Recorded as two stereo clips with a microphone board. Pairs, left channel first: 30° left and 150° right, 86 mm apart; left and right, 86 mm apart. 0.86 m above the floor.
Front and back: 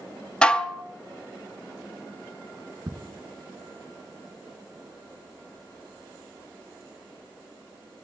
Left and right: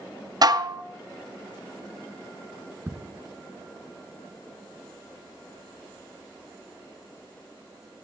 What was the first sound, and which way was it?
Dishes clattering, 50° right.